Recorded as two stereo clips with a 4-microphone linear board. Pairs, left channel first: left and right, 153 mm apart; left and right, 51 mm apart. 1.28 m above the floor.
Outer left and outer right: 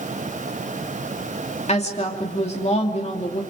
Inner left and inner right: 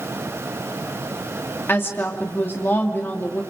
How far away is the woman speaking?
About 2.5 m.